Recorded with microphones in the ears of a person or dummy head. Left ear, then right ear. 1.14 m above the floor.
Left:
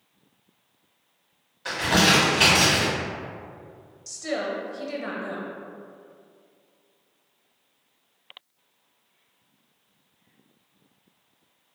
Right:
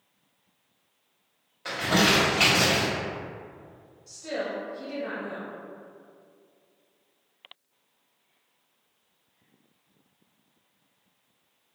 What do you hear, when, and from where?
1.6 s crumpling: 20° right (ahead or behind), 1.7 m
4.1 s a woman speaking: 70° left (ahead or behind), 1.1 m